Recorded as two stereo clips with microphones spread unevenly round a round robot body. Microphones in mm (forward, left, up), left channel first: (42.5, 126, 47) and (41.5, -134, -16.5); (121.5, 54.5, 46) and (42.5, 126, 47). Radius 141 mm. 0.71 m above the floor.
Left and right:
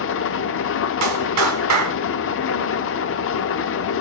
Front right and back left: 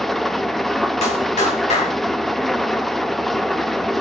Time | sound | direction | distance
0.0 | an engine running | 45° left | 0.9 m
1.0 | a clap | 75° right | 2.5 m